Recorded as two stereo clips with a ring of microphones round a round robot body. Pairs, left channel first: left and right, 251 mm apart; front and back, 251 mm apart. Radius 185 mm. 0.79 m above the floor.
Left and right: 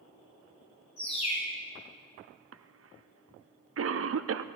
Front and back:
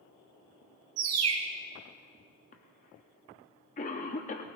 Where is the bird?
165° left, 1.8 m.